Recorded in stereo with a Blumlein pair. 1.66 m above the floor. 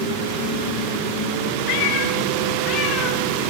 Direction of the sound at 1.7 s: 45° left.